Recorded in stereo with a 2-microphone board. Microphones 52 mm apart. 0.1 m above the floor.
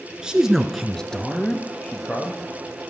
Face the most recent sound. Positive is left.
turn(degrees=25)  # may be behind; listen again after turning